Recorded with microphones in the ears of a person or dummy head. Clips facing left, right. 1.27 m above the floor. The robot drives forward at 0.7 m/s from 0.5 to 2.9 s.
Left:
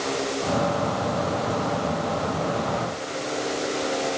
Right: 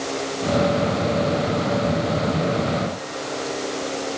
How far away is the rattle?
I don't hear a rattle.